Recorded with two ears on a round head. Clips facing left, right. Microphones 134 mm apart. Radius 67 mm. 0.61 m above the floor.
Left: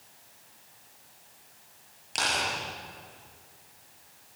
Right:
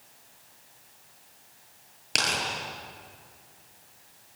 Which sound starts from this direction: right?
Tearing paper, at 2.1 s.